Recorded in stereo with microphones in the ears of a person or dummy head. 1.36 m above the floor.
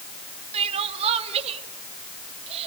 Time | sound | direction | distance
0.5 | crying | 35° right (ahead or behind) | 2.5 m